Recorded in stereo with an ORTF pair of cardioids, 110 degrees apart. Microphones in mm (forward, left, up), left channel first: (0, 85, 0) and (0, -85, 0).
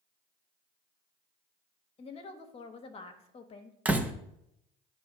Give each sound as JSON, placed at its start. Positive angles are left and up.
{"t": 2.0, "sound": "a woman speaking", "azimuth_deg": 35, "distance_m": 1.1}
{"t": 3.9, "sound": "a door slam", "azimuth_deg": -10, "distance_m": 0.8}